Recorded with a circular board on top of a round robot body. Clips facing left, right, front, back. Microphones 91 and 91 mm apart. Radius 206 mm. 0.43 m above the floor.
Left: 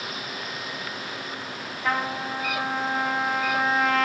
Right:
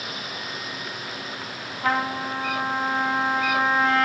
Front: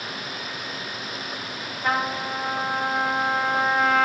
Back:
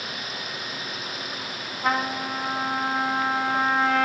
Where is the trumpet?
130° right, 2 m.